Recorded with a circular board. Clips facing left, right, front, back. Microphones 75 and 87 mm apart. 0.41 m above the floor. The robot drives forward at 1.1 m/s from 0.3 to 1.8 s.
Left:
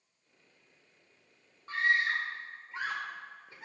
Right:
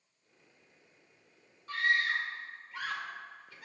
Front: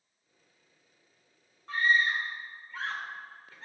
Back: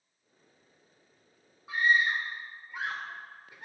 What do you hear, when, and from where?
1.7 s a scream: 105° left, 1.2 m; by 3.6 s 120° left, 1.2 m